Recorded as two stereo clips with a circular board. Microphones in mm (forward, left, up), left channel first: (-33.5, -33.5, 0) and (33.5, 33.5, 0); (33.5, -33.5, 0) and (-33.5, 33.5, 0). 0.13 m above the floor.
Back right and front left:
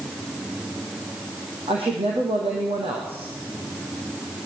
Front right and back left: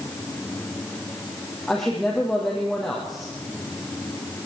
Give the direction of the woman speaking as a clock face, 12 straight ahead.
11 o'clock.